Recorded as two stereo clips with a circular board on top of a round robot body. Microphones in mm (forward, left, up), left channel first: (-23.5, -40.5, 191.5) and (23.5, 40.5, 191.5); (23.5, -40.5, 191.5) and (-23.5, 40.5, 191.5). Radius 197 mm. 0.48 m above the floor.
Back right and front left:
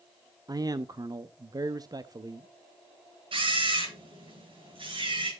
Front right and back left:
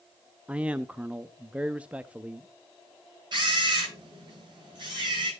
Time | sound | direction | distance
0.5 | a man speaking | 50° left | 0.8 m
3.3 | a camera shutter | 80° left | 9.5 m